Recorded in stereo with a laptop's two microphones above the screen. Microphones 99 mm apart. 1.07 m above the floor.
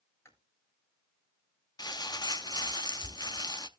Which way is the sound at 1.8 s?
45° left (ahead or behind).